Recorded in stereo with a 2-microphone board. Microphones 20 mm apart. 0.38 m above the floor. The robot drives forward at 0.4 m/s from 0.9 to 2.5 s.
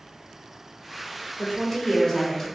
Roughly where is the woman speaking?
Left.